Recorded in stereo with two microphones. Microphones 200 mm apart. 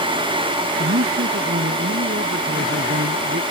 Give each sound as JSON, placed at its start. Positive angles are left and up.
{"t": 0.8, "sound": "a man speaking", "side_deg": -90}